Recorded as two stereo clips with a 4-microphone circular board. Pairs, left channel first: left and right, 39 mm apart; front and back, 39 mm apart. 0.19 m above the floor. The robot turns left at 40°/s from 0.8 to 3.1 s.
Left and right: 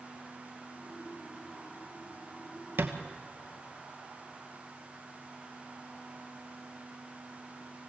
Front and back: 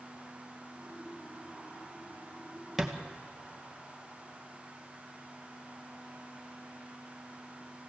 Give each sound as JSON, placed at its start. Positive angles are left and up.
{"t": 2.8, "sound": "a thud", "azimuth_deg": -95, "distance_m": 1.6}